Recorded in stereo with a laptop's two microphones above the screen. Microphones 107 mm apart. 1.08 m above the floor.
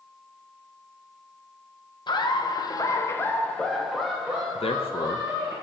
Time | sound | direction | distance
2.1 | laughter | 45° left (ahead or behind) | 1.0 m
4.5 | a man speaking | 65° left (ahead or behind) | 0.8 m